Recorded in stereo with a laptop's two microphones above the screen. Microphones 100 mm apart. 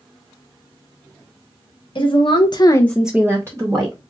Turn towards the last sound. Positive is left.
turn(degrees=-35)  # may be behind; listen again after turning